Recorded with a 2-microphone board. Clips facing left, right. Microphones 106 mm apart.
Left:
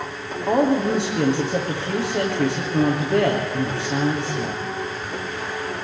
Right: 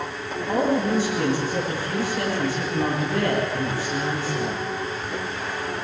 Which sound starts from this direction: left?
A woman speaking, at 0.5 s.